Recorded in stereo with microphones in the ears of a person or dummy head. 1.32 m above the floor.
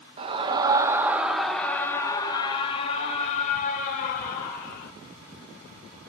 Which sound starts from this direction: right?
A scream, at 0.2 s.